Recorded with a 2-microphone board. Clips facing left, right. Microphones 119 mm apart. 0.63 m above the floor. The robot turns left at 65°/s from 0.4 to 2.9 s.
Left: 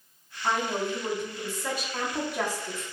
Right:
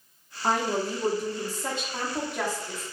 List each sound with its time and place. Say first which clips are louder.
0.4 s a woman speaking: right 2 dB; 60° right, 0.9 m; by 2.8 s 145° left, 0.9 m